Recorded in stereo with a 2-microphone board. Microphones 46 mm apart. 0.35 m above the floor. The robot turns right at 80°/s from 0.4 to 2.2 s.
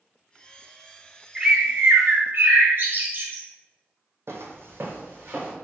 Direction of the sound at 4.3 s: 70° right (ahead or behind).